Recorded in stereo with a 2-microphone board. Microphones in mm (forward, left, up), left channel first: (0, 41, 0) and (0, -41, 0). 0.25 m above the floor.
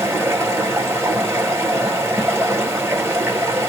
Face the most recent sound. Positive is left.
turn(degrees=-30)  # may be behind; listen again after turning